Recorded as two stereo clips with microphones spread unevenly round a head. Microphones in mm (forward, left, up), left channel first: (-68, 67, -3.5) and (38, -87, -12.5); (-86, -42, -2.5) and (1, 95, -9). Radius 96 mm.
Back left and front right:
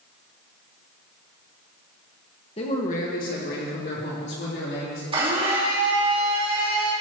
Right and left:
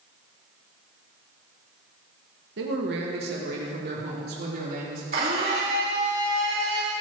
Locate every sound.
2.6 s a man speaking: 60° left, 1.6 m; by 5.0 s 90° left, 4.5 m
5.1 s a blender: 10° left, 4.5 m